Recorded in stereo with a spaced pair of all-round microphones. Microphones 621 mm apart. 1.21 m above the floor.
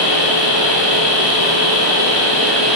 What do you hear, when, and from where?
0.0 s a machine running: 30° left (ahead or behind), 0.9 m